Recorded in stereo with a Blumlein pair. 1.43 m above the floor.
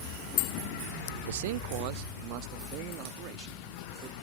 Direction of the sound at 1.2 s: 60° right.